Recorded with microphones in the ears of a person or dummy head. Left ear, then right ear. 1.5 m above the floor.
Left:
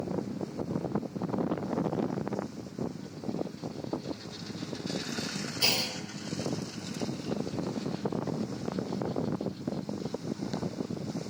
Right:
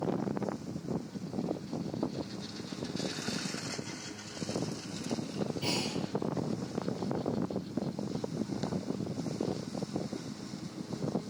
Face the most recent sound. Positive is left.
turn(degrees=50)  # may be behind; listen again after turning